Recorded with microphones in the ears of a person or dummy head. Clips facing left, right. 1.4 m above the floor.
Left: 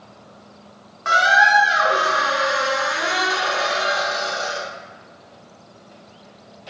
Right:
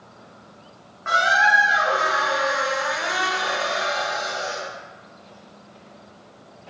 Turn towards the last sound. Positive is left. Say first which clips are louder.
# left 3 dB
turn(degrees=45)  # may be behind; listen again after turning